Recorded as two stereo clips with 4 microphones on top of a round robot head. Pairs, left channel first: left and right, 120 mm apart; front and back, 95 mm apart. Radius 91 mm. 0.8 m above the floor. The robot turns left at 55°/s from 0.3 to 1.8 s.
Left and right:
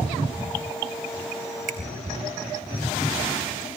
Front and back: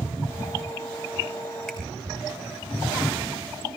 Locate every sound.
1.7 s a finger snap: 85° right, 4 m; by 1.8 s 95° right, 4 m